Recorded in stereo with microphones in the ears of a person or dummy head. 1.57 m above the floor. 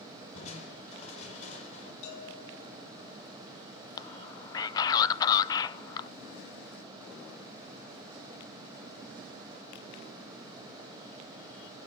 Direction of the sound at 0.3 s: 40° left (ahead or behind).